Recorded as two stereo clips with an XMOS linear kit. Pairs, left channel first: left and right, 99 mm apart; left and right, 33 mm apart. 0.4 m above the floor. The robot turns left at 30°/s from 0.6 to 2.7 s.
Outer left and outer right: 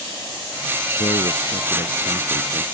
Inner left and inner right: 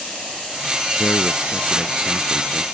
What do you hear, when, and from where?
1.0 s a man speaking: 100° left; by 2.6 s 50° left